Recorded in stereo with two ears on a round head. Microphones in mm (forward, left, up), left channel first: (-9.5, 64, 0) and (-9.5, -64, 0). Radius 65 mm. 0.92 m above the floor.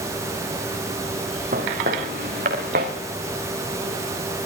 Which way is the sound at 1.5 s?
70° right (ahead or behind).